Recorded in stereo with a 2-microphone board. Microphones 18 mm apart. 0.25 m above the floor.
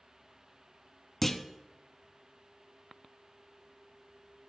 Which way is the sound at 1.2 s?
15° left (ahead or behind).